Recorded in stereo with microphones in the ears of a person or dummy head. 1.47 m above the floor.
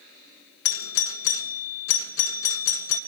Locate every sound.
0.7 s a doorbell: 70° left (ahead or behind), 1.5 m